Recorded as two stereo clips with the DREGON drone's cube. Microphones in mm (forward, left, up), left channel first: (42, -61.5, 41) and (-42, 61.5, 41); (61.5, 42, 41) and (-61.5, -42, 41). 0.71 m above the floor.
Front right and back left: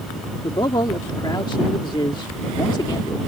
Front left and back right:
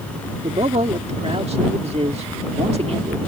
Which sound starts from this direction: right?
A man speaking, at 0.4 s.